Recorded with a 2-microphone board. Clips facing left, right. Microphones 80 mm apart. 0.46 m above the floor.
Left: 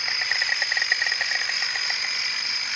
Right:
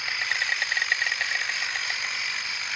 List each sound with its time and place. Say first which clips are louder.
0.0 s an insect: left 1 dB; 15° left (ahead or behind)